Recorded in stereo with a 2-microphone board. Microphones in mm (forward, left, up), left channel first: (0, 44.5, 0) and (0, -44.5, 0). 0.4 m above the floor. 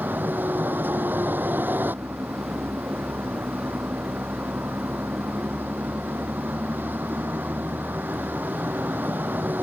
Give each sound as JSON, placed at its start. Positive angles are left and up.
{"t": 0.0, "sound": "a vehicle", "side_deg": -20}